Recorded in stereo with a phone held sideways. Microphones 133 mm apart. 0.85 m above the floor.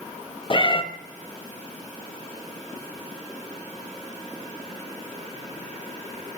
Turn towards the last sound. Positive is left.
turn(degrees=40)  # may be behind; listen again after turning